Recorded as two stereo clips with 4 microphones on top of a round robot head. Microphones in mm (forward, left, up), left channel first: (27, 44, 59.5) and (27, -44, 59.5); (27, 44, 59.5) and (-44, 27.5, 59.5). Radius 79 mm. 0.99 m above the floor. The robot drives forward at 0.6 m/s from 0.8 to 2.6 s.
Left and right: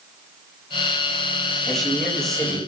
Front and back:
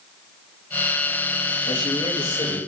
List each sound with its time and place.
1.7 s a man speaking: 5° left, 8 m